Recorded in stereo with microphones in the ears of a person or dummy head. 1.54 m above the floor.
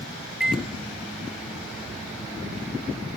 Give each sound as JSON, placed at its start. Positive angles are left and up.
{"t": 0.4, "sound": "a microwave", "side_deg": -5, "distance_m": 0.7}